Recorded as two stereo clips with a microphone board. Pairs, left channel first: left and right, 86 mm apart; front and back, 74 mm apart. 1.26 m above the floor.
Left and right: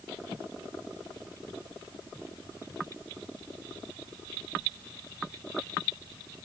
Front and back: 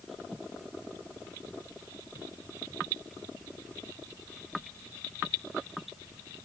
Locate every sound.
Only background noise.